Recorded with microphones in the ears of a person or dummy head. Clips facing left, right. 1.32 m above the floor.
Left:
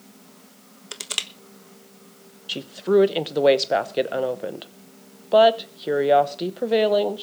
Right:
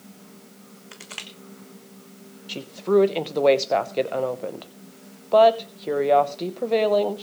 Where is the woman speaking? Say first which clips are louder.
Left 1 dB; 10° left (ahead or behind), 0.9 m.